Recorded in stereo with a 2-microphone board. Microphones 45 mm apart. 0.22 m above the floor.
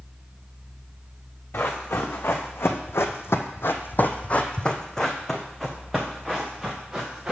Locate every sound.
1.5 s running footsteps: 60° left (ahead or behind), 1.3 m; by 7.3 s 10° right (ahead or behind), 2.0 m